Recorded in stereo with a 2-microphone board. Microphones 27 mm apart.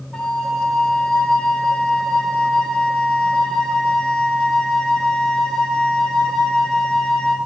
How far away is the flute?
About 0.5 m.